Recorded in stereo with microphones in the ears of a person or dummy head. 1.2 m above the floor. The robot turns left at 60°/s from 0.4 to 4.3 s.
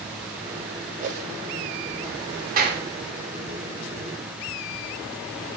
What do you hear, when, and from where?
1.0 s a whoosh: 45° right (ahead or behind), 1.4 m; by 1.3 s 55° right (ahead or behind), 1.4 m
2.6 s a clap: 45° right (ahead or behind), 3 m; by 2.9 s 65° right (ahead or behind), 3 m